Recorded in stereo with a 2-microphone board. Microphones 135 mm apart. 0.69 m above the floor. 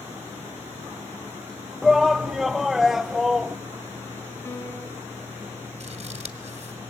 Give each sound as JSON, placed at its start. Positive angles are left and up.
{"t": 1.8, "sound": "a shout", "side_deg": 0, "distance_m": 0.7}
{"t": 4.5, "sound": "a piano", "side_deg": 15, "distance_m": 5.0}
{"t": 5.8, "sound": "scissors", "side_deg": -55, "distance_m": 1.8}